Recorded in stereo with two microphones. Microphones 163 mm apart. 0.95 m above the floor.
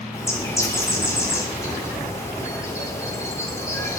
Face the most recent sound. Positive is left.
turn(degrees=20)  # may be behind; listen again after turning